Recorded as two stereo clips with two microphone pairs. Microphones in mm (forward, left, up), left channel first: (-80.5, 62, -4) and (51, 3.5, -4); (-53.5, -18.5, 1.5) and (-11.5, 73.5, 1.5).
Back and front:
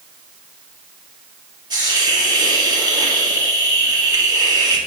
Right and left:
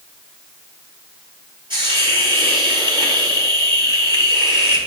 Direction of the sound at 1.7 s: 35° left.